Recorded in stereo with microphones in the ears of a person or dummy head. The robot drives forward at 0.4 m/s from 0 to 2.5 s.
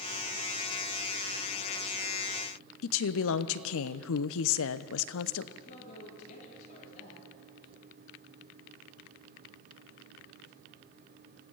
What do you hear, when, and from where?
2.8 s a woman speaking: 75° left (ahead or behind), 0.9 m
5.5 s a man speaking: 40° left (ahead or behind), 8.5 m